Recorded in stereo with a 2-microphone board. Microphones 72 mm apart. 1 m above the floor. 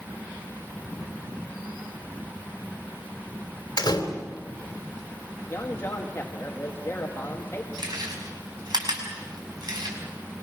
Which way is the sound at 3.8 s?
60° left (ahead or behind).